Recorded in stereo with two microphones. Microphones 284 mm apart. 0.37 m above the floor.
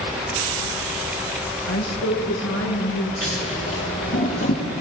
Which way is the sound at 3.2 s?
50° left (ahead or behind).